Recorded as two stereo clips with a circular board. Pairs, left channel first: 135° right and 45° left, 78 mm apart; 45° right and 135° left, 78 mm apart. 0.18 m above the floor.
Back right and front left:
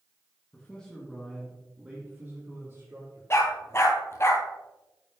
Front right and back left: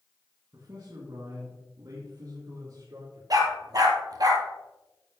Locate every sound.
0.5 s a man speaking: 160° left, 2 m; by 3.2 s 100° left, 3.5 m
3.3 s a dog barking: 170° left, 1.5 m